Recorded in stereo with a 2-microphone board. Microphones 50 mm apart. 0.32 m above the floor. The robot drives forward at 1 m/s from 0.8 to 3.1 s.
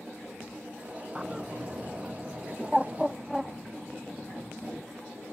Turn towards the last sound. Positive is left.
turn(degrees=-5)  # may be behind; listen again after turning